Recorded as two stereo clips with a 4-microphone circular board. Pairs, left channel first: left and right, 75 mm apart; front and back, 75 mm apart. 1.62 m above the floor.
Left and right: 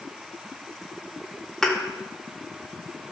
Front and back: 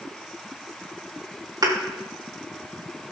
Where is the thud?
175° left, 1.7 m.